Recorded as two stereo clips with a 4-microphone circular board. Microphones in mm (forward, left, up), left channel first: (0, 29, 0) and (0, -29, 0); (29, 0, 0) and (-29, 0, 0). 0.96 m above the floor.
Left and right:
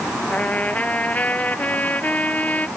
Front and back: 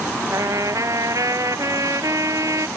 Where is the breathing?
I don't hear breathing.